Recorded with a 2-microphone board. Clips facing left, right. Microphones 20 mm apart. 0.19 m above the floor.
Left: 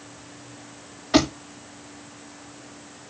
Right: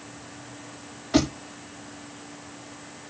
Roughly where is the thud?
Left.